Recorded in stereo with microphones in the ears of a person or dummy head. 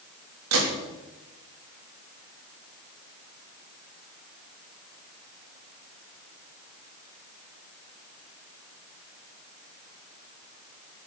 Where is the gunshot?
80° right, 3.5 m.